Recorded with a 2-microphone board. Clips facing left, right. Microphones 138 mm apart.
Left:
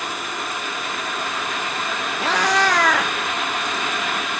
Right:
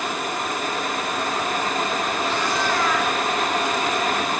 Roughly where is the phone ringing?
I don't hear a phone ringing.